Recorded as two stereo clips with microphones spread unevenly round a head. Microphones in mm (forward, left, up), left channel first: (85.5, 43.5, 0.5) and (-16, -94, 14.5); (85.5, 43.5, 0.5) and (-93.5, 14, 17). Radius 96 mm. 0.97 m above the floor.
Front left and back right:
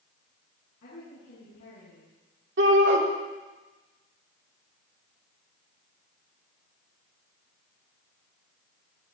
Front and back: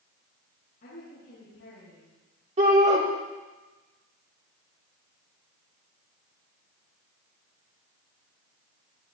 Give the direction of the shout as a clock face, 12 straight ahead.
4 o'clock.